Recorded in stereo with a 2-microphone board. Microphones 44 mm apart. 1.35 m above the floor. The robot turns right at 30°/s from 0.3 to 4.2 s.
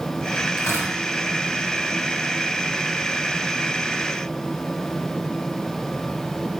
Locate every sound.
0.6 s tearing paper: 85° left, 4.5 m; by 0.9 s 75° left (ahead or behind), 4.5 m